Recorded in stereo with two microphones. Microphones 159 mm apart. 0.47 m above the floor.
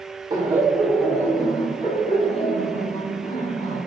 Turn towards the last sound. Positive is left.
turn(degrees=55)  # may be behind; listen again after turning